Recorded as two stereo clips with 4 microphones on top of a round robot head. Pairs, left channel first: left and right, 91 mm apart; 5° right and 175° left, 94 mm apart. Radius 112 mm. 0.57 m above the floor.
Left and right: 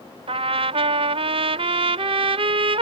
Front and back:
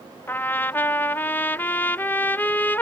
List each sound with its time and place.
0.3 s a trumpet: 75° right